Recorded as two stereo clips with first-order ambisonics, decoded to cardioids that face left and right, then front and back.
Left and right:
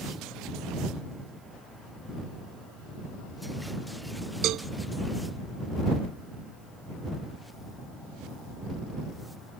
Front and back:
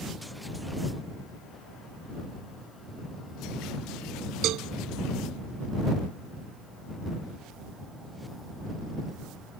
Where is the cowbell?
135° right.